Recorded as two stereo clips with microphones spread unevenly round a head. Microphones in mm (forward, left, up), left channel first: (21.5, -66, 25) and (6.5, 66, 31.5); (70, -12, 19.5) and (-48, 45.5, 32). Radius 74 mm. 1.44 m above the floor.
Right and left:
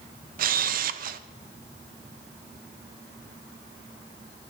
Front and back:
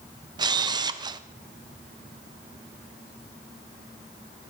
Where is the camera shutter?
95° left, 0.8 m.